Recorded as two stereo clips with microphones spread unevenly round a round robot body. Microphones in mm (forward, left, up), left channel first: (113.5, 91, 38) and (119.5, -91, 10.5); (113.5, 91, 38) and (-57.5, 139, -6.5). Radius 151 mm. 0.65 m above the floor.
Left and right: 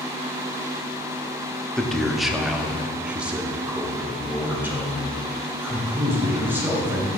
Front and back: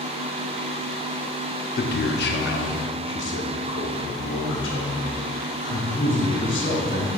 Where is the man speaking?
5° right, 0.7 m; by 7.1 s 10° right, 3.5 m.